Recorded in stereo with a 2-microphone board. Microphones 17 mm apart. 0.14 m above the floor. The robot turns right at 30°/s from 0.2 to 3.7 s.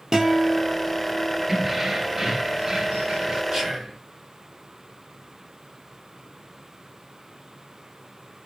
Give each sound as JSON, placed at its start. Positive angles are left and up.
{"t": 0.1, "sound": "a guitar", "azimuth_deg": -145, "distance_m": 1.9}
{"t": 1.5, "sound": "keys jangling", "azimuth_deg": -160, "distance_m": 1.4}
{"t": 3.5, "sound": "whispering", "side_deg": -45, "distance_m": 2.0}